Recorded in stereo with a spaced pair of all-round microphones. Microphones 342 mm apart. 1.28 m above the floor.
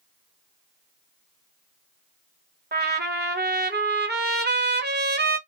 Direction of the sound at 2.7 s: 30° right (ahead or behind).